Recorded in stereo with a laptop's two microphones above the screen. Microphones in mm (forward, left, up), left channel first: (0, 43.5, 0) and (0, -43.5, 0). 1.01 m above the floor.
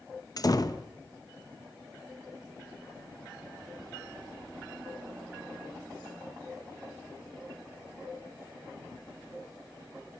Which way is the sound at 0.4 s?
45° left (ahead or behind).